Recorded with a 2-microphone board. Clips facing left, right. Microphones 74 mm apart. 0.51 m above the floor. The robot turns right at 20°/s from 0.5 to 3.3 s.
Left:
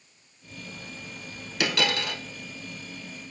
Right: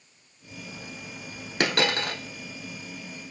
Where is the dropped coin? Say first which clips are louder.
Right 2 dB; 50° right (ahead or behind), 0.5 m.